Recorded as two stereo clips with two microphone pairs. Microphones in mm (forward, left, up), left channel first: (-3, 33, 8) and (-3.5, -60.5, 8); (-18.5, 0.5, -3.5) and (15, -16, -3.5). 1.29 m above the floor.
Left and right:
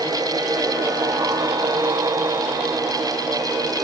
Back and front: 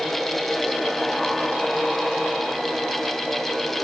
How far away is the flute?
I don't hear a flute.